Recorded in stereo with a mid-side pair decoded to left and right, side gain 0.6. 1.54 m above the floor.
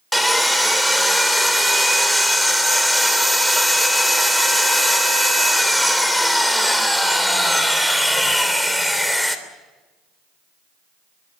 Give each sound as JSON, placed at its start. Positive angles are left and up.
{"t": 0.1, "sound": "sawing", "azimuth_deg": 0, "distance_m": 3.0}